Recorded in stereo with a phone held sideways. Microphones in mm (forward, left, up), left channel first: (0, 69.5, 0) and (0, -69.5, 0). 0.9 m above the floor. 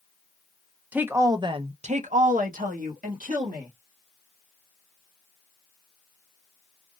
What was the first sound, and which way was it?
A woman speaking, 10° right (ahead or behind).